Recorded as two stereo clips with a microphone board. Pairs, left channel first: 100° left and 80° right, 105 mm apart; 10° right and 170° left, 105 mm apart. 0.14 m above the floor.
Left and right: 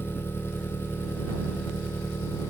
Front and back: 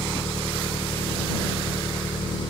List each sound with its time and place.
0.0 s an engine running: 30° left